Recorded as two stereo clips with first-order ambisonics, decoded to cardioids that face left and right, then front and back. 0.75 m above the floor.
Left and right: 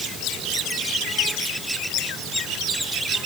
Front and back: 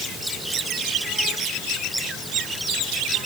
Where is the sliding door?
I don't hear a sliding door.